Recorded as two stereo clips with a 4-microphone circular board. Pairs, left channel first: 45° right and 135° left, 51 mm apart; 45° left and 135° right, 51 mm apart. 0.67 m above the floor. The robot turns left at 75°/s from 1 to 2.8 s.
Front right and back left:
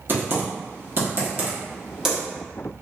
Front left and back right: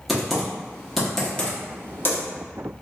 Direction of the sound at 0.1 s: 135° left.